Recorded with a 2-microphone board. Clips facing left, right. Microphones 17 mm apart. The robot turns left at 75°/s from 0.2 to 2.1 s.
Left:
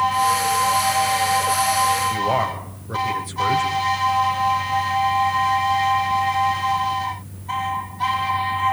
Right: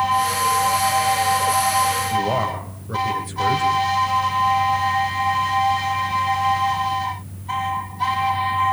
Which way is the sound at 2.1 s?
10° left (ahead or behind).